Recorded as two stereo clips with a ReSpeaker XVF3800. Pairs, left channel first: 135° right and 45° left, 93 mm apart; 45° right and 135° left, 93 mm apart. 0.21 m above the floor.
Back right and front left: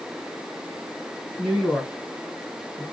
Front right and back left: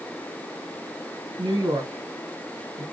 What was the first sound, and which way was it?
A woman speaking, 150° left.